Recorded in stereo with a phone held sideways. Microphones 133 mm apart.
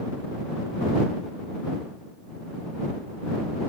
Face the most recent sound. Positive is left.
No sound to turn to.